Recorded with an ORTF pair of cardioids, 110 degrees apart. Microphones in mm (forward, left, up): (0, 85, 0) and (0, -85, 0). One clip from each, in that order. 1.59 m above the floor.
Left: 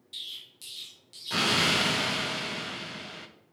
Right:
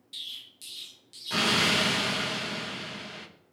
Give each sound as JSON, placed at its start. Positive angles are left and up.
{"t": 0.1, "sound": "an explosion", "azimuth_deg": 0, "distance_m": 0.6}